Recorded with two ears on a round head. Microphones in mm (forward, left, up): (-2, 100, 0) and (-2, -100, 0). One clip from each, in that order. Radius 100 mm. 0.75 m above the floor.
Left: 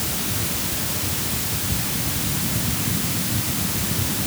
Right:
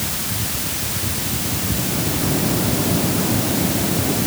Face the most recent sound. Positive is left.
No sound to turn to.